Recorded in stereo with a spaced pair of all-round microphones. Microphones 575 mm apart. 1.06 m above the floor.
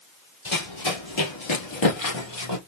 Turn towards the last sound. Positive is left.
turn(degrees=45)  # may be behind; listen again after turning